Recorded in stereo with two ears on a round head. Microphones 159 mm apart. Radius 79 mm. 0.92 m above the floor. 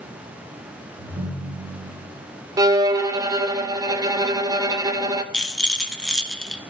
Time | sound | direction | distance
1.0 | a ringtone | 70° right (ahead or behind) | 4.5 m
2.6 | a violin | 20° right (ahead or behind) | 0.5 m
5.3 | a rattle | 5° left (ahead or behind) | 0.7 m